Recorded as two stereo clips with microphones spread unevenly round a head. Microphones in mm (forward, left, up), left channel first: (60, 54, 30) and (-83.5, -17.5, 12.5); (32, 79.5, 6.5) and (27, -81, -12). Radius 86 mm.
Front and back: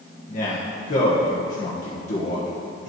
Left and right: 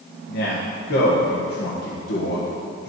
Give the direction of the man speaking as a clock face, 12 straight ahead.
10 o'clock.